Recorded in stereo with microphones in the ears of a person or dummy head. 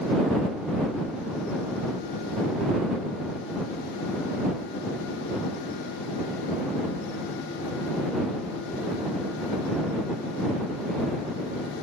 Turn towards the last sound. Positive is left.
No sound to turn to.